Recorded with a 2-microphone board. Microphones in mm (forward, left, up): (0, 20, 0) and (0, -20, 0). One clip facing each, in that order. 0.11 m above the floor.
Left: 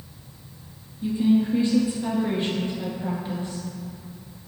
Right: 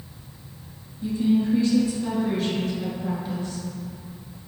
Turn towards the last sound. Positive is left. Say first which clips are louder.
# left 1 dB
turn(degrees=25)  # may be behind; listen again after turning